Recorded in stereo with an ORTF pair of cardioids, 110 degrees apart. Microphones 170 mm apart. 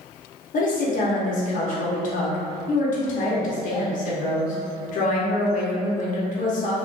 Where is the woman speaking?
50° left, 0.7 m.